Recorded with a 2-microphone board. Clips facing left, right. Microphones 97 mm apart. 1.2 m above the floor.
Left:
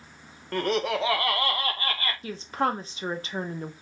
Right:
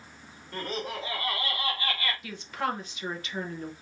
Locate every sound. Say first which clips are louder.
0.5 s laughter: left 9 dB; 65° left (ahead or behind), 0.8 m; by 2.1 s 35° left (ahead or behind), 1.0 m
2.2 s a woman speaking: left 7 dB; 35° left (ahead or behind), 0.8 m